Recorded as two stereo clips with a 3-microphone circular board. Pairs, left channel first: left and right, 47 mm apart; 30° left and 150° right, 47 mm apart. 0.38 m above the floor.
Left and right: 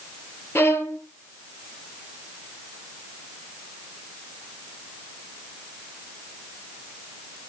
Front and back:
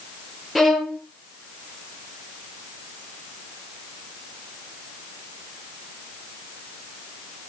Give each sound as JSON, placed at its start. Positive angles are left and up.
{"t": 0.6, "sound": "a violin", "azimuth_deg": 125, "distance_m": 3.0}